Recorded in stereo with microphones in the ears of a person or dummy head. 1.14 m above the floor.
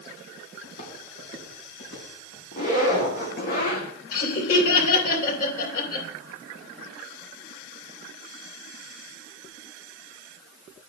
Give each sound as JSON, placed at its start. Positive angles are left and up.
{"t": 0.6, "sound": "footsteps", "side_deg": 65, "distance_m": 2.5}
{"t": 2.5, "sound": "a zipper", "side_deg": 45, "distance_m": 1.6}
{"t": 4.1, "sound": "laughter", "side_deg": 55, "distance_m": 2.5}